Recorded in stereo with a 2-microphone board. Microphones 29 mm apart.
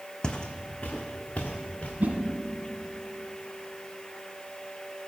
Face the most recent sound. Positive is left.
turn(degrees=-60)  # may be behind; listen again after turning